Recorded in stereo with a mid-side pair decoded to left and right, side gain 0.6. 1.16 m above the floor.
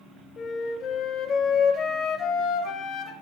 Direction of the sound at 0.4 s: 50° left.